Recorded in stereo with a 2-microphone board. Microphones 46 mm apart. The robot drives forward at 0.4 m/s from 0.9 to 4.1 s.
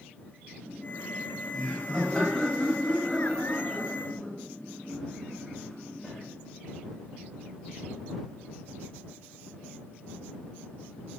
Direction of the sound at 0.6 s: 10° left (ahead or behind).